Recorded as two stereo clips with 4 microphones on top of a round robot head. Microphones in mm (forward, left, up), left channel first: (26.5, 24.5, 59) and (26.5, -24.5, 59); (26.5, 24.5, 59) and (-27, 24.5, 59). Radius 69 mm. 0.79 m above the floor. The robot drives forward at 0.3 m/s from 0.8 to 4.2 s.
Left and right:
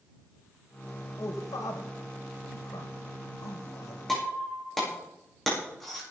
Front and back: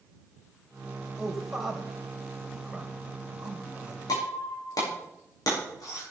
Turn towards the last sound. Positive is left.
turn(degrees=5)